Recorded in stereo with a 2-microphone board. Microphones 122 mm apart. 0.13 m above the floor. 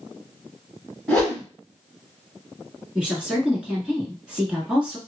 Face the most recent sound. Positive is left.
turn(degrees=-10)  # may be behind; listen again after turning